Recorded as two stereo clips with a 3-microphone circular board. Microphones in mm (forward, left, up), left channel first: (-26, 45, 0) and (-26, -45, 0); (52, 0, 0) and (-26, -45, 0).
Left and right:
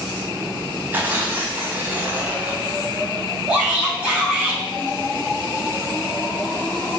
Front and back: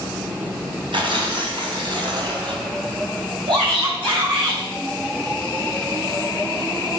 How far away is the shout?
About 5 m.